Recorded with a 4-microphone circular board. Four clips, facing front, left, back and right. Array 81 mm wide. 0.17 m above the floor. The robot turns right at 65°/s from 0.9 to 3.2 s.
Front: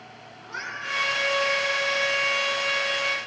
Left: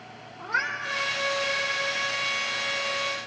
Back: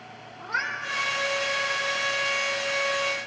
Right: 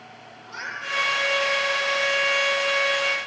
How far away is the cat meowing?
About 8 m.